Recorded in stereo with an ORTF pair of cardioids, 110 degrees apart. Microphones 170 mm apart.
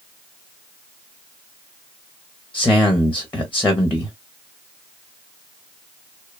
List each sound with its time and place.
2.5 s a man speaking: 10° left, 0.8 m